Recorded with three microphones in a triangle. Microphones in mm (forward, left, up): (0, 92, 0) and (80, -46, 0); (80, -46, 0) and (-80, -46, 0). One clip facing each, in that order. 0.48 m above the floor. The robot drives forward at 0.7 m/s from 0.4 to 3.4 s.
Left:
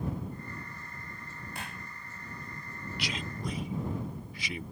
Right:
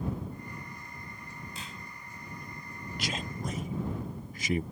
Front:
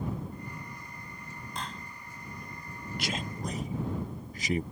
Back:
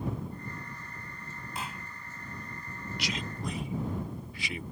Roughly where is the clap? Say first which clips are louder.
Left 2 dB, even; left.